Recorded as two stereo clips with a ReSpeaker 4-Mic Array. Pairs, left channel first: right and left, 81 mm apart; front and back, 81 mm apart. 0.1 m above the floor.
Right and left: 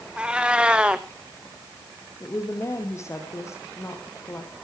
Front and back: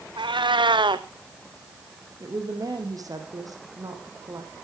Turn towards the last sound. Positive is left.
turn(degrees=-140)